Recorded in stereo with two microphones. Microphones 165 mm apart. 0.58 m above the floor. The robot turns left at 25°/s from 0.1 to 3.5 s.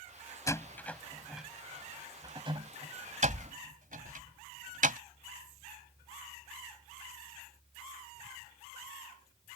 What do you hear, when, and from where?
0.5 s a door slam: 20° left (ahead or behind); by 5.0 s 55° right (ahead or behind)